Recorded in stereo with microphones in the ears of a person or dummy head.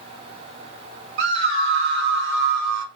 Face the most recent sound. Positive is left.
turn(degrees=-75)  # may be behind; listen again after turning